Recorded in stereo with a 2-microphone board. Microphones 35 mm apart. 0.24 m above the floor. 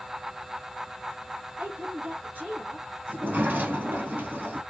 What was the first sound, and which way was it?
A woman speaking, 55° right (ahead or behind).